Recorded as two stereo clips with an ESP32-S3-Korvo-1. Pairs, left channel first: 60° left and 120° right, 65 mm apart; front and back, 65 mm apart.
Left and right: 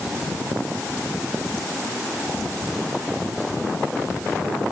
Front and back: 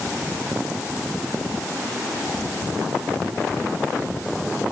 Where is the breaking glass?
No breaking glass in this recording.